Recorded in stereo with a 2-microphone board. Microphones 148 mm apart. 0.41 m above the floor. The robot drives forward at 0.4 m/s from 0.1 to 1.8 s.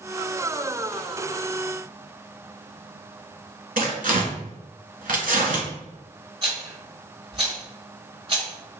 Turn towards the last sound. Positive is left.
turn(degrees=-40)  # may be behind; listen again after turning